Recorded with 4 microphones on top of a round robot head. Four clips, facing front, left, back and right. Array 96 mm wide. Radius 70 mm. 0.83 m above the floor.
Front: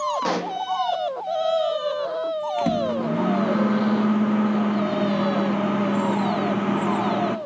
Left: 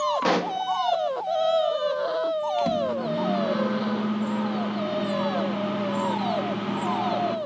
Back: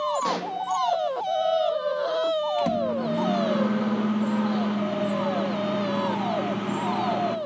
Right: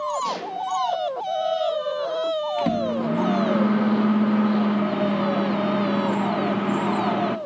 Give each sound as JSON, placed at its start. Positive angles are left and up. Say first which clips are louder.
{"t": 0.2, "sound": "a pop", "louder": "left 4 dB, front 2 dB", "azimuth_deg": 75, "distance_m": 1.3}
{"t": 2.6, "sound": "a microwave", "louder": "right 1 dB, front 2 dB", "azimuth_deg": -50, "distance_m": 0.8}